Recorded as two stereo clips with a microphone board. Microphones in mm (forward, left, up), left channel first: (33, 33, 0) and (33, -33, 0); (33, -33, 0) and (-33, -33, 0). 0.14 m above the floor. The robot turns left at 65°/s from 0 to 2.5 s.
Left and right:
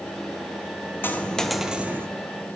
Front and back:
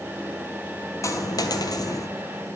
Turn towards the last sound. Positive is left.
turn(degrees=-60)